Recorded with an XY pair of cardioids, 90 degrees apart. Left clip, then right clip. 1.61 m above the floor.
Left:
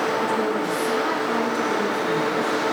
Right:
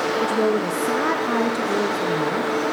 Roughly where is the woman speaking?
Ahead right.